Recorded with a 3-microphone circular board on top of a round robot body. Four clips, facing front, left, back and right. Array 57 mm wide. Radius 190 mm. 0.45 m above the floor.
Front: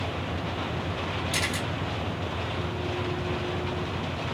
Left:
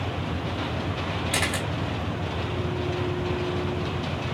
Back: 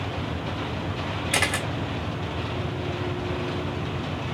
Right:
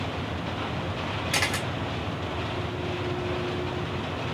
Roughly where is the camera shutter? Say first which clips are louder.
Even, back 7 dB; behind.